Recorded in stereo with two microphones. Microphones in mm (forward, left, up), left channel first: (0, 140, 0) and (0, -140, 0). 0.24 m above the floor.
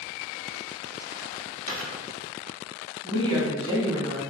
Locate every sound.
1.7 s a dropped coin: 70° right (ahead or behind), 2.0 m
3.0 s a woman speaking: 20° right (ahead or behind), 1.8 m